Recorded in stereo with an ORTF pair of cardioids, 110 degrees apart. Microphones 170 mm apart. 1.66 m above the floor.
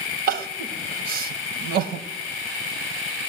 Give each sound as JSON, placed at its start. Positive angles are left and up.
{"t": 0.3, "sound": "crying", "azimuth_deg": -65, "distance_m": 1.3}